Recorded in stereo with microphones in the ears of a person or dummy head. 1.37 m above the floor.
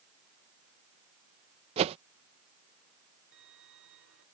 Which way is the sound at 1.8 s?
35° right (ahead or behind).